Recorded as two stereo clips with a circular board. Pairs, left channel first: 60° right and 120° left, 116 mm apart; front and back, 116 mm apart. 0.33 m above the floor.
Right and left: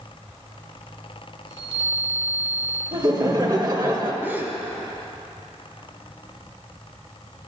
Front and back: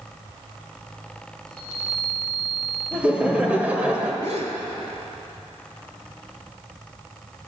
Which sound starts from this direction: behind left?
A chime, at 1.5 s.